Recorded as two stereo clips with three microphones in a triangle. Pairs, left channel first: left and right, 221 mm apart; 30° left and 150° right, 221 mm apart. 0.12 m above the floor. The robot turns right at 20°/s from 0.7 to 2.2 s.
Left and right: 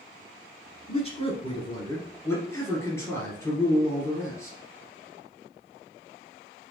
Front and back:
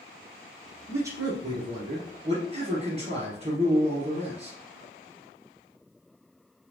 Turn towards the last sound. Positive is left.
turn(degrees=165)